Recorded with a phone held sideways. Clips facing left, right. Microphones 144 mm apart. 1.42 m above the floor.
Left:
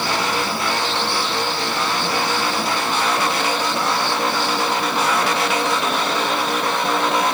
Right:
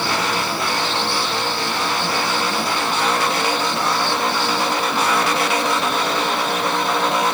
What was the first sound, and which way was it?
Only background noise.